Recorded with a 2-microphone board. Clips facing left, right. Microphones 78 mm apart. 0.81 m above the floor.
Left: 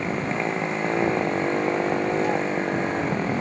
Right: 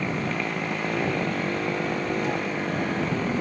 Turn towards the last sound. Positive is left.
turn(degrees=20)  # may be behind; listen again after turning